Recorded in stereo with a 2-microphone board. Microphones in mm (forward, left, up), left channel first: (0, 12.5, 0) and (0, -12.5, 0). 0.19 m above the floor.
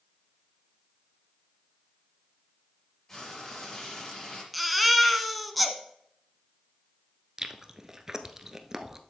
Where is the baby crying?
Centre (ahead or behind), 1.0 m.